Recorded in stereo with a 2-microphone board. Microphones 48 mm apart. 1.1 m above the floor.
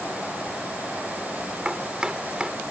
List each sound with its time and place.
1.6 s chopping: 15° right (ahead or behind)